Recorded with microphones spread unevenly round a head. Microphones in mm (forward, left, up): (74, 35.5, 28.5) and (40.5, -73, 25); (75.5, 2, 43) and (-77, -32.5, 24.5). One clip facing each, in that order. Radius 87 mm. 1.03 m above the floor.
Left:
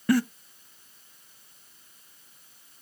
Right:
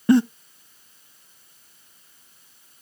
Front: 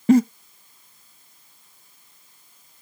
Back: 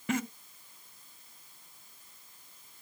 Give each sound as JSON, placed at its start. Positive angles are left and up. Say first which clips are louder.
{"t": 0.1, "sound": "a giggle", "louder": "right 7 dB, front 17 dB", "azimuth_deg": -45, "distance_m": 0.5}